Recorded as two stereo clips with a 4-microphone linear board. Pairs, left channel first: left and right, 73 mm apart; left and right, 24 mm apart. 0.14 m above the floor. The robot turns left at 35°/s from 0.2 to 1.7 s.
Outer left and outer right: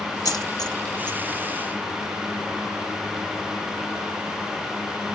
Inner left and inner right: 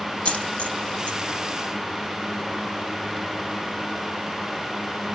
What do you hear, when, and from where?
0.2 s a dropped coin: 65° left (ahead or behind), 1.4 m; by 1.2 s 70° left (ahead or behind), 1.4 m